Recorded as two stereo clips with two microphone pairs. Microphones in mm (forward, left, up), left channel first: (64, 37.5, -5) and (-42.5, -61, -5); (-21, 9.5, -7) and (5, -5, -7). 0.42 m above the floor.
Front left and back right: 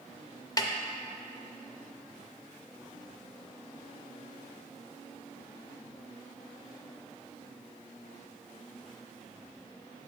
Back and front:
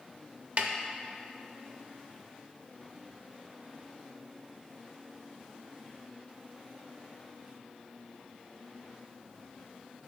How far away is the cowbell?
I don't hear a cowbell.